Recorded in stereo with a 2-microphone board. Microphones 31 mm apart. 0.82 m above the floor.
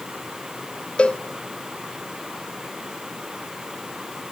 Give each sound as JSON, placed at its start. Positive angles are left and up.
{"t": 1.0, "sound": "a cowbell", "side_deg": 40, "distance_m": 0.9}